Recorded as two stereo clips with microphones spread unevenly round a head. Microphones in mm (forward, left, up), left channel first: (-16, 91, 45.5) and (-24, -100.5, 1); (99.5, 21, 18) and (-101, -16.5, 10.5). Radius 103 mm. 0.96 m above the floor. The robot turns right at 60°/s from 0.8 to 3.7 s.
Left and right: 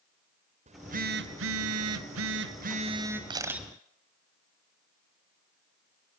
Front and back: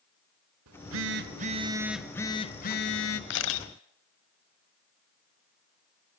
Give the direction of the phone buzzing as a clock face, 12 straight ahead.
5 o'clock.